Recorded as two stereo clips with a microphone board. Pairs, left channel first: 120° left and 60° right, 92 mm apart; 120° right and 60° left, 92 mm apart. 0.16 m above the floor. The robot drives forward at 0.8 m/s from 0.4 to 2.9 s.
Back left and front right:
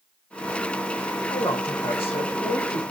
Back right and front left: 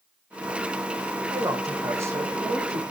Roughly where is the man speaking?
Behind left.